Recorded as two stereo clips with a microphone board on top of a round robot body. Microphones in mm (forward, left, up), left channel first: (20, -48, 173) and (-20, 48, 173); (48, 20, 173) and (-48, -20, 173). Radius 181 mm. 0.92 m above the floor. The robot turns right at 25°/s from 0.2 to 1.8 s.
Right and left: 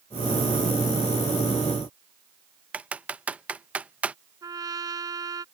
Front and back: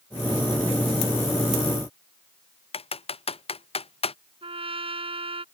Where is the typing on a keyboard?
35° left.